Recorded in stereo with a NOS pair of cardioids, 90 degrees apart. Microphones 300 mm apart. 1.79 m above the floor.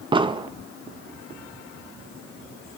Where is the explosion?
15° right, 1.0 m.